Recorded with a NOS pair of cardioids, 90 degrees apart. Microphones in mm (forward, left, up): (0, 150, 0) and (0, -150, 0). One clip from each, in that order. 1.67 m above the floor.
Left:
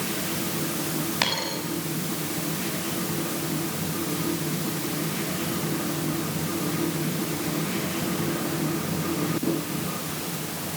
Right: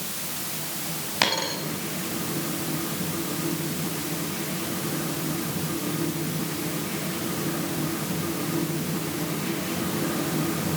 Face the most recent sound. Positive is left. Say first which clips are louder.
# right 3 dB
turn(degrees=-15)